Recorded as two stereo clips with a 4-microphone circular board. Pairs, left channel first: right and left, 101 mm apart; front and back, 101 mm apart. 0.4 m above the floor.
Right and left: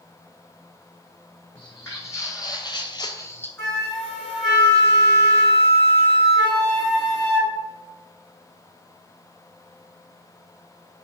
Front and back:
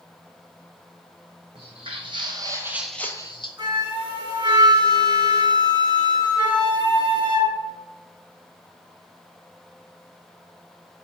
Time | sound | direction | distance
1.6 | footsteps | 155° right | 1.6 m
3.6 | a flute | 170° right | 1.3 m